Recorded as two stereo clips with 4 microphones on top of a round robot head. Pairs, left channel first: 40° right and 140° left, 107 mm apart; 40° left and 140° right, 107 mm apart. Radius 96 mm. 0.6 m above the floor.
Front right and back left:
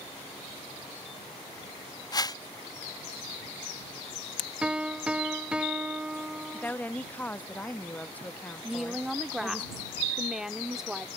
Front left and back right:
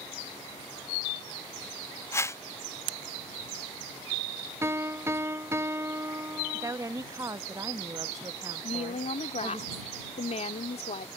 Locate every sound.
2.1 s a whoosh: 10° right
4.6 s a piano: 155° right
6.5 s a woman speaking: 105° right
8.6 s a woman speaking: 55° left